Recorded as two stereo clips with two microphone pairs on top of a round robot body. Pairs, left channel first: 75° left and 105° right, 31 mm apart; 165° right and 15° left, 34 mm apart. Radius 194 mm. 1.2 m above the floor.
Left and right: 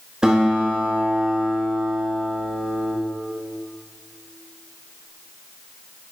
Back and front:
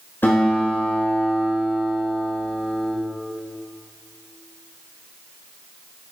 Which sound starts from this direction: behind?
A guitar, at 0.2 s.